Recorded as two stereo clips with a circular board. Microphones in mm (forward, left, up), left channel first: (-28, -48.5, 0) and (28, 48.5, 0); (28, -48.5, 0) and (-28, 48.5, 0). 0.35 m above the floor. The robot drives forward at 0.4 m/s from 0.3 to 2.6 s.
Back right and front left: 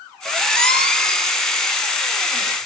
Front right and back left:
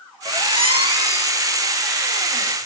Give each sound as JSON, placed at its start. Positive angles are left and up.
{"t": 0.2, "sound": "a squeak", "azimuth_deg": 155, "distance_m": 2.5}